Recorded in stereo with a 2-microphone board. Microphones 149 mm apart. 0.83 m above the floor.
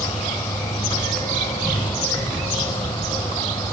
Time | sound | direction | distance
0.0 | an insect | 30° left (ahead or behind) | 1.9 m